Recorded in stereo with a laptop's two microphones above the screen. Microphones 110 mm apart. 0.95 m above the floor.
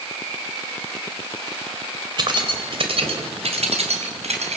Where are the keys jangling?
45° right (ahead or behind), 3 m; by 4.6 s 85° right, 5 m.